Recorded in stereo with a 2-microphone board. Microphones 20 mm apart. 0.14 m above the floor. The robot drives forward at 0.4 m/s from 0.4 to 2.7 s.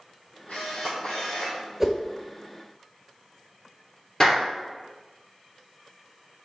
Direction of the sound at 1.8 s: 15° right (ahead or behind).